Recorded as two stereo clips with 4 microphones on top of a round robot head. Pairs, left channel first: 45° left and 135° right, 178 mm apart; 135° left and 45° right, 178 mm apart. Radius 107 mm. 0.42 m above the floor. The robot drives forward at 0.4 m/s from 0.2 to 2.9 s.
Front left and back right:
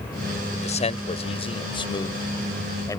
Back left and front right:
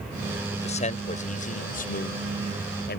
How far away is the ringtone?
No ringtone in this recording.